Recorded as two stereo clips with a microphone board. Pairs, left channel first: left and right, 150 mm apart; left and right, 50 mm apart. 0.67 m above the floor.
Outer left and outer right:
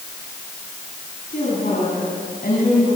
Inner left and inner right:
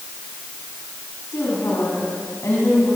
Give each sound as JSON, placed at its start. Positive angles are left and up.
{"t": 1.3, "sound": "a woman speaking", "side_deg": 75, "distance_m": 6.5}